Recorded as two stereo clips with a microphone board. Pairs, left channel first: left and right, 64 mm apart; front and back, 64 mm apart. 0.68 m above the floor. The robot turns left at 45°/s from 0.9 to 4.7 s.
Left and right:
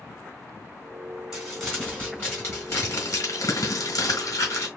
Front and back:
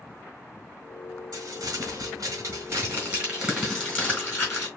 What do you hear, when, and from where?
1.3 s crumpling: 170° right, 3 m; by 4.7 s 40° left, 3 m